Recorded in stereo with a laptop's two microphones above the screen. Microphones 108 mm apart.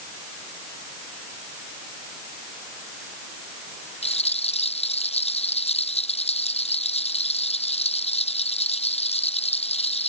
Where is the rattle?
85° left.